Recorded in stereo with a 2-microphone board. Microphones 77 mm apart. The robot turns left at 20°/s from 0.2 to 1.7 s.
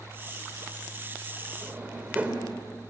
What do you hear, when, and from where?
1.6 s a drawer: 20° right (ahead or behind), 3 m